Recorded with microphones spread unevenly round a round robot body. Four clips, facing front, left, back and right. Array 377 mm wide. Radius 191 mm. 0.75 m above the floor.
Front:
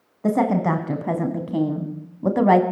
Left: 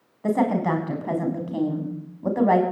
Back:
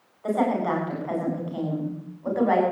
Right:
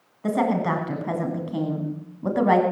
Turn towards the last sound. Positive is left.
turn(degrees=-15)